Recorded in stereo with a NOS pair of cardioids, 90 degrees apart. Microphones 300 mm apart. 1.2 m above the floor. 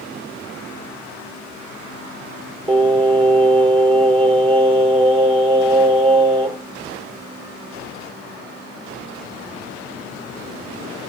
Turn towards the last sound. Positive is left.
turn(degrees=-20)